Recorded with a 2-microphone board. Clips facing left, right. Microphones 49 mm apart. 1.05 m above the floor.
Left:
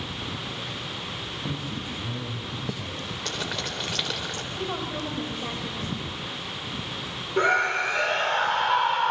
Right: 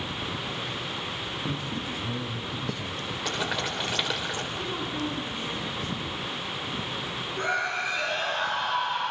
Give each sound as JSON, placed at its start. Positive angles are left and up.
{"t": 1.5, "sound": "a man speaking", "side_deg": 5, "distance_m": 7.0}
{"t": 3.2, "sound": "boiling", "side_deg": -10, "distance_m": 4.0}
{"t": 4.6, "sound": "a woman speaking", "side_deg": 70, "distance_m": 5.5}
{"t": 7.4, "sound": "a scream", "side_deg": 70, "distance_m": 4.0}